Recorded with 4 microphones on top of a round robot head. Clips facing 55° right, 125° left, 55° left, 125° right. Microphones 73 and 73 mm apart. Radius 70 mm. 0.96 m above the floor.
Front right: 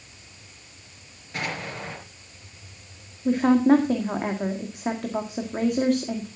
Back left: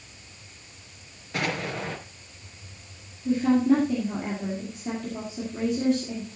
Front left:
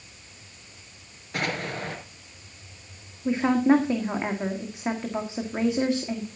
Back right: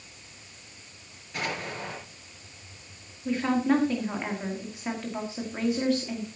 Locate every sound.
1.3 s an explosion: 100° left, 3.5 m
3.2 s a woman speaking: 15° right, 1.9 m